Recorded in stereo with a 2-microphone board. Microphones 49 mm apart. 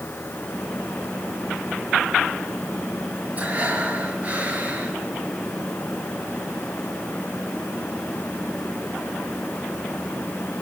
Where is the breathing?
30° right (ahead or behind), 5 m.